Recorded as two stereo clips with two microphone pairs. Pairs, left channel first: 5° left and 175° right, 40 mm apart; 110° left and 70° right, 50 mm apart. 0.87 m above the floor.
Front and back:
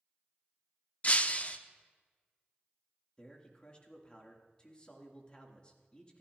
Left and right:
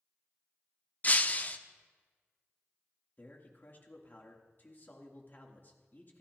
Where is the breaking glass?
55° left, 0.7 m.